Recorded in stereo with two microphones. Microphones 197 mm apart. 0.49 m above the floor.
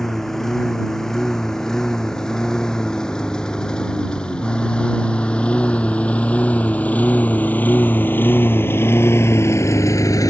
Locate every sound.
0.0 s a lawn mower: centre (ahead or behind); by 10.3 s 15° left (ahead or behind)